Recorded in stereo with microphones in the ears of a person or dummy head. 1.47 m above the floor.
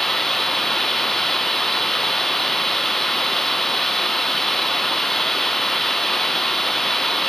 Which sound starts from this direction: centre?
Running water, at 0.0 s.